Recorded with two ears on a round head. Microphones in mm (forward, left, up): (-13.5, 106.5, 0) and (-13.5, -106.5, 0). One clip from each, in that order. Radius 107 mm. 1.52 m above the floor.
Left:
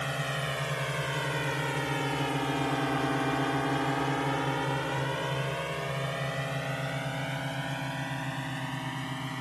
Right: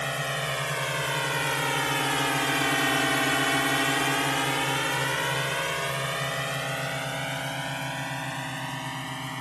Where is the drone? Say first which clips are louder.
Right 4 dB; 30° right (ahead or behind); by 9.4 s 25° right (ahead or behind).